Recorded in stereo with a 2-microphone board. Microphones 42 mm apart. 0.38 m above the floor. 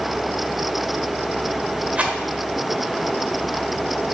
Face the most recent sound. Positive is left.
turn(degrees=-35)  # may be behind; listen again after turning